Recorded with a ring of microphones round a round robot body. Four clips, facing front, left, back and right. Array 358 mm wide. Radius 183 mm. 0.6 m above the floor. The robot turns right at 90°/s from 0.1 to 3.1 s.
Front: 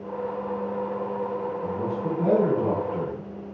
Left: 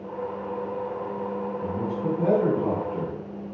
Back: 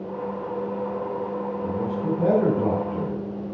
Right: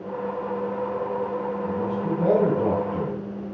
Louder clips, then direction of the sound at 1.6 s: Right 2 dB, back 2 dB; 105° left.